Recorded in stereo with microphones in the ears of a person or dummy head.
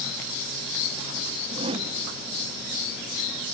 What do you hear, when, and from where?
1.5 s a whoosh: 35° right (ahead or behind), 1.1 m